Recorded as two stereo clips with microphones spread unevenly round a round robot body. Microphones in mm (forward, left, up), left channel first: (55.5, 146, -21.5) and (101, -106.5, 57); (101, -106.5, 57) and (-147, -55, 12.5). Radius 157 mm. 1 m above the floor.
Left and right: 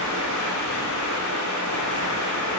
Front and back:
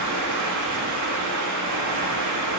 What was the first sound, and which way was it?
Running water, 140° left.